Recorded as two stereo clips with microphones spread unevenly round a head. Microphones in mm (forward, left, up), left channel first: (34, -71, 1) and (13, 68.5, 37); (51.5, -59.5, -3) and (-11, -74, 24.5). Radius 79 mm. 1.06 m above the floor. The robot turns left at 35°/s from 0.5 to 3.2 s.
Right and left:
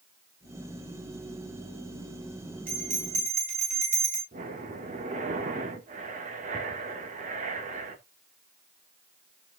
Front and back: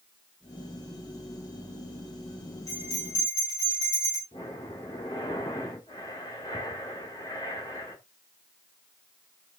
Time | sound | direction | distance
2.7 | a bell | 75° left | 6.5 m
4.3 | breathing | 60° left | 2.0 m